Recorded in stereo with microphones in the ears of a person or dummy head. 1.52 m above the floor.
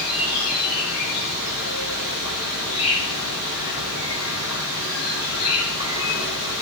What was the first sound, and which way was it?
An insect, 75° left (ahead or behind).